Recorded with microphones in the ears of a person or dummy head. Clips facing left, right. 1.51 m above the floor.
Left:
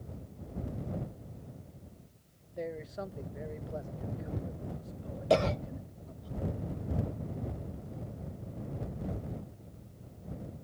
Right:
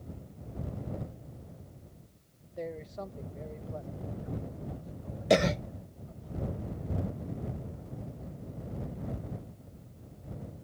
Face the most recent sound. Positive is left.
turn(degrees=-20)  # may be behind; listen again after turning